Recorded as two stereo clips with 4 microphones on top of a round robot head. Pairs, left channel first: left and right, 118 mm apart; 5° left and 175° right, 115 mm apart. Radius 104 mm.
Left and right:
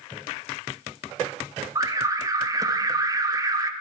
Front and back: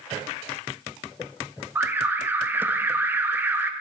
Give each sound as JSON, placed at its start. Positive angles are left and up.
{"t": 1.8, "sound": "an alarm", "azimuth_deg": -120, "distance_m": 0.8}